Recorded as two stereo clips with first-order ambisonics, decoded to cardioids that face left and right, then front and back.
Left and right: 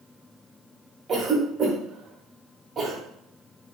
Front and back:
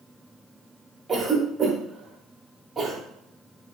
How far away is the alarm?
I don't hear an alarm.